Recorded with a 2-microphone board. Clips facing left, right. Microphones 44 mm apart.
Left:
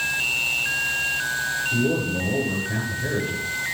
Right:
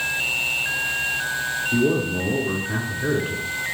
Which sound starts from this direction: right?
A man speaking, at 1.7 s.